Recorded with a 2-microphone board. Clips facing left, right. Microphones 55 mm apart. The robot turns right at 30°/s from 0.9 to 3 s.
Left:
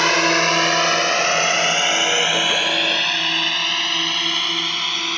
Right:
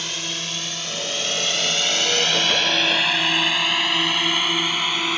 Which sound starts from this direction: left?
A drone, at 0.0 s.